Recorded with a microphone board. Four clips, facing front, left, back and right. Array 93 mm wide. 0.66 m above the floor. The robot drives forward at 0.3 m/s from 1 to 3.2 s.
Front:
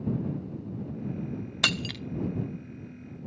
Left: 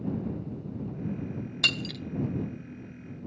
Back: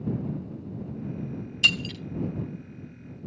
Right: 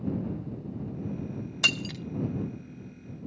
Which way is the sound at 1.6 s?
10° right.